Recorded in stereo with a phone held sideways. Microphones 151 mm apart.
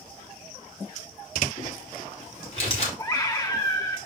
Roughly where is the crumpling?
Left.